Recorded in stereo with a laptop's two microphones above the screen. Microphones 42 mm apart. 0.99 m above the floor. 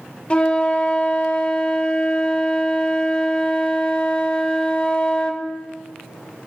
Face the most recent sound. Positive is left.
turn(degrees=25)  # may be behind; listen again after turning